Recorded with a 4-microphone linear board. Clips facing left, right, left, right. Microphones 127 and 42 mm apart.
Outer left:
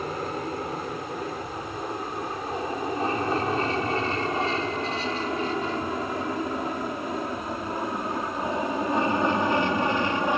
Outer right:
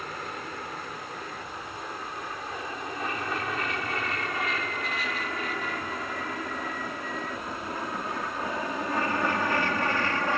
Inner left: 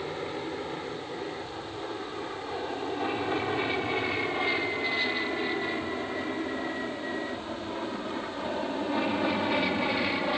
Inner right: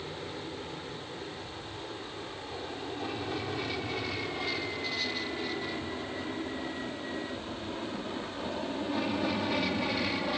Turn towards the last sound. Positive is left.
turn(degrees=20)  # may be behind; listen again after turning